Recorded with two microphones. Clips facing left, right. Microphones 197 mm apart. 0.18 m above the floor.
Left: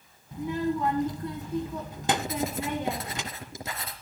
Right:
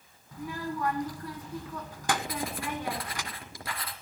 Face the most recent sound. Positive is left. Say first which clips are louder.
# left 5 dB
turn(degrees=25)  # may be behind; listen again after turning